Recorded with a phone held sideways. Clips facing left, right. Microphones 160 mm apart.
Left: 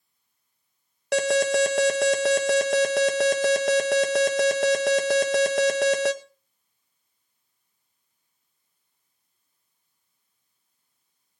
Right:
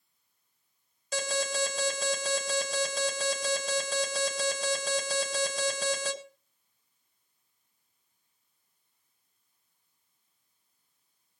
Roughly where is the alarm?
Left.